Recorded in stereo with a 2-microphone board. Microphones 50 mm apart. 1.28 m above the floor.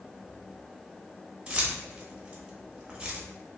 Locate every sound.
1.5 s keys jangling: 15° right (ahead or behind), 0.8 m